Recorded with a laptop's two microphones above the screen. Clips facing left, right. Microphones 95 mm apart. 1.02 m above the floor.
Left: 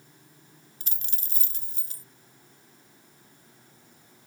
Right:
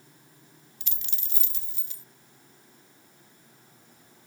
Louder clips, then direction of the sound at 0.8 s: Left 1 dB; 40° left (ahead or behind).